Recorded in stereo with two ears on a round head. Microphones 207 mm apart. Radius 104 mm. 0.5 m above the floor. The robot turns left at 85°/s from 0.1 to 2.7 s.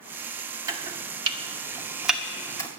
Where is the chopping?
15° right (ahead or behind), 1.1 m; by 2.7 s 15° left (ahead or behind), 1.1 m.